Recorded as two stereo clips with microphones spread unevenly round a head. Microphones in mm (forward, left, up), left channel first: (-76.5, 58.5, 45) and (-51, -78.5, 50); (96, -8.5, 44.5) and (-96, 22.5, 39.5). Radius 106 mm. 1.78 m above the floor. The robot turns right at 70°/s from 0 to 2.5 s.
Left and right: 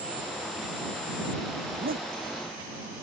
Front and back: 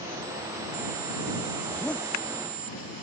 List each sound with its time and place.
1.7 s a zipper: 110° right; by 2.1 s 80° right